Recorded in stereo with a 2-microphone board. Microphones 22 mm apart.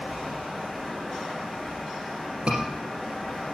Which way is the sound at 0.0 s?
Centre (ahead or behind).